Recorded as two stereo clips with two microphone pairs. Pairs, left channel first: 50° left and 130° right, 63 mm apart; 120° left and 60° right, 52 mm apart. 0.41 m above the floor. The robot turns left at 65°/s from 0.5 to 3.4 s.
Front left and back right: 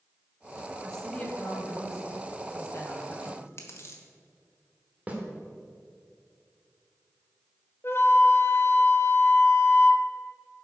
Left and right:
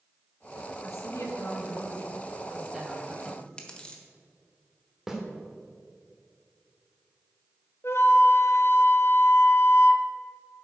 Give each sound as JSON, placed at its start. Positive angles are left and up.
{"t": 0.8, "sound": "a woman speaking", "azimuth_deg": 140, "distance_m": 2.5}
{"t": 3.2, "sound": "chewing", "azimuth_deg": 65, "distance_m": 1.3}
{"t": 5.1, "sound": "a snare drum", "azimuth_deg": -125, "distance_m": 1.4}
{"t": 7.8, "sound": "a flute", "azimuth_deg": 90, "distance_m": 0.6}